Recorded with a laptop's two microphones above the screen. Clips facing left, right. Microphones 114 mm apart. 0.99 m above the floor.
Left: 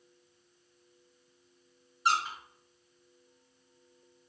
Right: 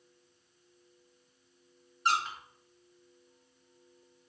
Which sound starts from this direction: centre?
A squeak, at 2.0 s.